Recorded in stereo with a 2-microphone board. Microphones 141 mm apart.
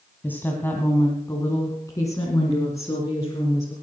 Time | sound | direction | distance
0.2 | a woman speaking | 10° left (ahead or behind) | 1.9 m